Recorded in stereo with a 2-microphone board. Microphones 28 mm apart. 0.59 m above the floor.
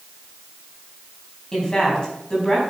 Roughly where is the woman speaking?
Left.